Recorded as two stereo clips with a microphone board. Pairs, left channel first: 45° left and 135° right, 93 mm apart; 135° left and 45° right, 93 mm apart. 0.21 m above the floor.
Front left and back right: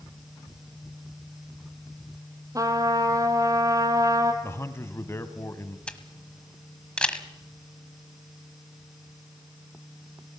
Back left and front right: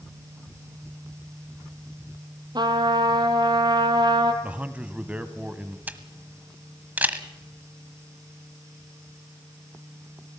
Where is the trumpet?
85° right, 1.9 m.